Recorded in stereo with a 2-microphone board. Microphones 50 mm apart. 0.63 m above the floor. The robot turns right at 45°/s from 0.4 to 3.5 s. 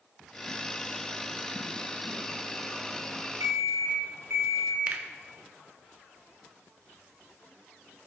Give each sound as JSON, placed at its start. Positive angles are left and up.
{"t": 3.4, "sound": "an alarm clock", "side_deg": -80, "distance_m": 3.0}
{"t": 4.9, "sound": "a finger snap", "side_deg": -35, "distance_m": 0.8}